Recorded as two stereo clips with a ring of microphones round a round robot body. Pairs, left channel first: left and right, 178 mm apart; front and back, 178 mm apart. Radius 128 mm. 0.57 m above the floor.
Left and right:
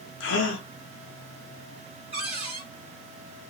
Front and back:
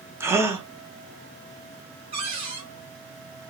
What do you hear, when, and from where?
0.2 s a gasp: 105° left, 0.9 m
2.1 s a cupboard door: 135° right, 1.4 m